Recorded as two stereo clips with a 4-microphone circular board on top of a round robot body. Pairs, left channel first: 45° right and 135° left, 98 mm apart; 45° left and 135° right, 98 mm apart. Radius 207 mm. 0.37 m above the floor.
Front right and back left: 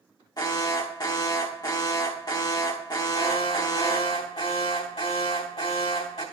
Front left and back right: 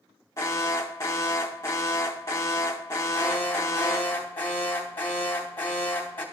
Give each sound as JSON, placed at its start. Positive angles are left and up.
{"t": 0.4, "sound": "an alarm", "azimuth_deg": -10, "distance_m": 1.6}
{"t": 3.1, "sound": "an alarm", "azimuth_deg": -25, "distance_m": 2.5}